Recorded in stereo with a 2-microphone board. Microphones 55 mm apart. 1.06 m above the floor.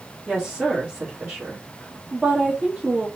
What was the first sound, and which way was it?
A woman speaking, 20° right (ahead or behind).